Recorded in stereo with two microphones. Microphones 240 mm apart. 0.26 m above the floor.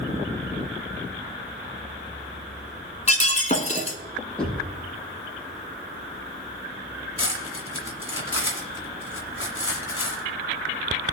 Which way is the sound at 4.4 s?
5° left (ahead or behind).